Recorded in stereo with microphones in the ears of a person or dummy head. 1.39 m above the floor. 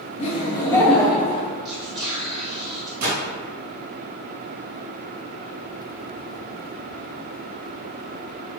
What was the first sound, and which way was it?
Laughter, 40° left (ahead or behind).